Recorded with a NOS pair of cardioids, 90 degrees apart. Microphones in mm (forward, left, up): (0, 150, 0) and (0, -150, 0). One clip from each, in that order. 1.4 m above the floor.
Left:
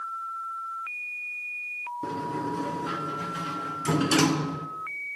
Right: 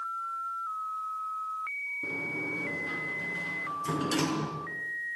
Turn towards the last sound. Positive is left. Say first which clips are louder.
# left 2 dB
turn(degrees=50)